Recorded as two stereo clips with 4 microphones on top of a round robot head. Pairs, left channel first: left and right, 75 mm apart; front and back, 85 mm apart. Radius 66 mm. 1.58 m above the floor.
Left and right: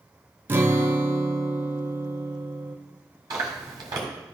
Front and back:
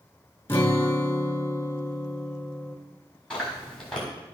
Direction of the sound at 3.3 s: 80° right.